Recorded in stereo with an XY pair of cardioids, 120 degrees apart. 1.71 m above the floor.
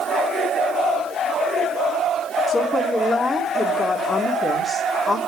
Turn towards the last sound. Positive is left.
turn(degrees=10)